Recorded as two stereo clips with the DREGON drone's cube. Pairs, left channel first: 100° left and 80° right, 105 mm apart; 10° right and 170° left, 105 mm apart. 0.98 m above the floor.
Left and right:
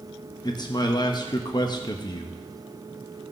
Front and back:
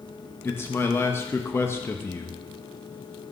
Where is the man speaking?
55° left, 0.8 m.